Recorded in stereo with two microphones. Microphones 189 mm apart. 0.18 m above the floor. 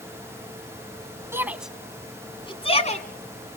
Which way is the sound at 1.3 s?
15° right (ahead or behind).